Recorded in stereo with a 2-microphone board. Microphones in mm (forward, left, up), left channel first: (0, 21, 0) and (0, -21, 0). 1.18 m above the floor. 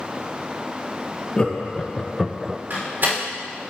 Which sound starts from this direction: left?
Laughter, at 1.4 s.